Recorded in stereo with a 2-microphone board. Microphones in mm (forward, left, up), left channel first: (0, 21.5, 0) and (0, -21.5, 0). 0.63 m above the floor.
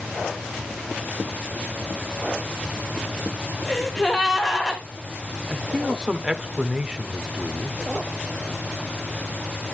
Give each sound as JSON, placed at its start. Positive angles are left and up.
{"t": 3.7, "sound": "a gasp", "side_deg": 5, "distance_m": 2.5}
{"t": 5.5, "sound": "a man speaking", "side_deg": -20, "distance_m": 1.4}